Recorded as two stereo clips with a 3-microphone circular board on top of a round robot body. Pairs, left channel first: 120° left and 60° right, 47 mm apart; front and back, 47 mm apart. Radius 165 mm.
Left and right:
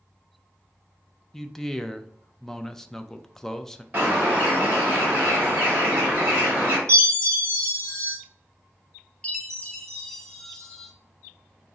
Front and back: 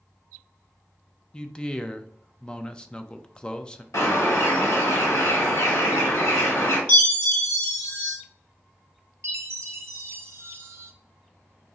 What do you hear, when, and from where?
1.3 s a man speaking: 50° left, 0.5 m
3.9 s a bird: straight ahead, 1.6 m
6.9 s a chime: 30° right, 0.8 m
9.2 s a chime: 165° right, 0.8 m